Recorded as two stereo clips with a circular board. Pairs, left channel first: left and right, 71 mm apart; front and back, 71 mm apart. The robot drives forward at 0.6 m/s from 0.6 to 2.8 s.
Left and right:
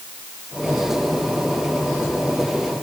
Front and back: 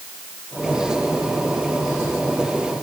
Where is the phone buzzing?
I don't hear a phone buzzing.